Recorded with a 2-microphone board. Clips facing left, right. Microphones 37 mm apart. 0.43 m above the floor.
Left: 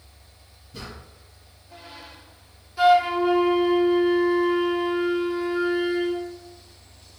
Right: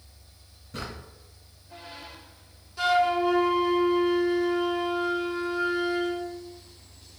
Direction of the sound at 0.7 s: 75° right (ahead or behind).